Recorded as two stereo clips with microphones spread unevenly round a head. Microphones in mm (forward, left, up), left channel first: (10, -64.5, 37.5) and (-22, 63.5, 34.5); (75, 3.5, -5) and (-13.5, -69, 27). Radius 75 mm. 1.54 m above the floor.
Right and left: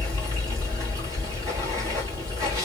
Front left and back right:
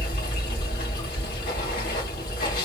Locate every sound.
0.0 s running water: 45° left, 2.5 m